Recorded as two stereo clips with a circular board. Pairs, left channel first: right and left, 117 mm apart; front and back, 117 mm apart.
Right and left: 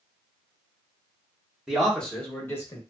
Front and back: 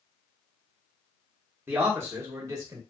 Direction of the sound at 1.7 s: 165° left.